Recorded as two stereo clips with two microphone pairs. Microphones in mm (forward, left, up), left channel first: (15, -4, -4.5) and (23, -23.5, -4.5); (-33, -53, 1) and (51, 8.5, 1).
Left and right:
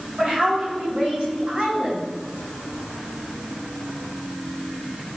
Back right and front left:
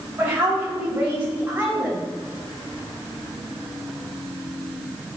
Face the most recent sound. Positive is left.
turn(degrees=-30)